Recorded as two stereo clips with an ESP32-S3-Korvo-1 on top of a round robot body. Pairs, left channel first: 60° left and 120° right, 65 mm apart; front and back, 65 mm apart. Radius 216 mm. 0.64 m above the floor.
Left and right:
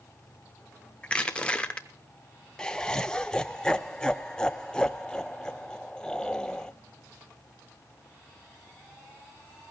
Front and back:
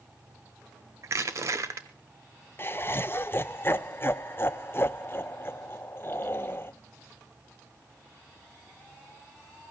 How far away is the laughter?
About 0.8 m.